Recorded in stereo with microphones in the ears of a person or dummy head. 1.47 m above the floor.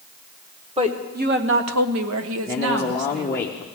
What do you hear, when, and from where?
0.8 s a woman speaking: 25° right (ahead or behind), 1.4 m; by 3.5 s 50° right (ahead or behind), 2 m
2.5 s a man speaking: 10° left (ahead or behind), 0.6 m